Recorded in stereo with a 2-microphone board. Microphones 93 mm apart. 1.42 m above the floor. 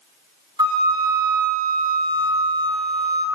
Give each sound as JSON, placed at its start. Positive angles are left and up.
{"t": 0.6, "sound": "a flute", "side_deg": -45, "distance_m": 1.7}